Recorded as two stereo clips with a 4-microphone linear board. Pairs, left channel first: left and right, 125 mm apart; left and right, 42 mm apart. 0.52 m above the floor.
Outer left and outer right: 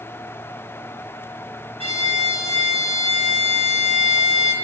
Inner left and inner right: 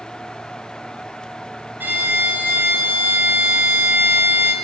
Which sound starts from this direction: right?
A violin, at 1.8 s.